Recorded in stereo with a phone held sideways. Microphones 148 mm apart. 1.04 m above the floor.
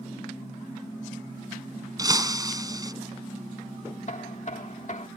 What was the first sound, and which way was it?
Breaking glass, 25° right (ahead or behind).